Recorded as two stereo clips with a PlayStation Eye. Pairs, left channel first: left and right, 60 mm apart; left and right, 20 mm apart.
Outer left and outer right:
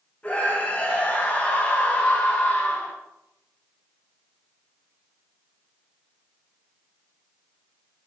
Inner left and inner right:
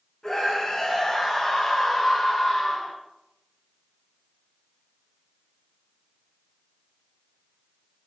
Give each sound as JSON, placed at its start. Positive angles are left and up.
{"t": 0.2, "sound": "a scream", "side_deg": 25, "distance_m": 2.5}